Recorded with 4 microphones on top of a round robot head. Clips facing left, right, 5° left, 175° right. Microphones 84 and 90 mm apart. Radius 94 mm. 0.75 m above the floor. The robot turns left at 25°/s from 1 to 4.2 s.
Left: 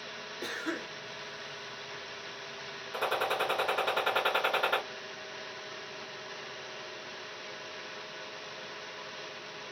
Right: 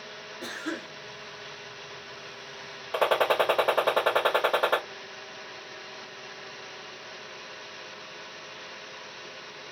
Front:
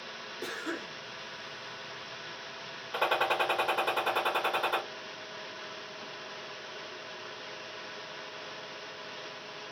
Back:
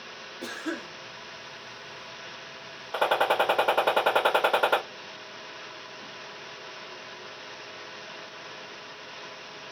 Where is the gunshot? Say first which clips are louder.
Right 8 dB, back 5 dB; 115° right, 0.9 m; by 4.8 s 150° right, 0.9 m.